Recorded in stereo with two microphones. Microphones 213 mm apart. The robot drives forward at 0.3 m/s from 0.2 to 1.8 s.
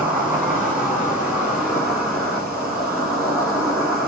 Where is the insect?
5° right (ahead or behind), 1.9 m.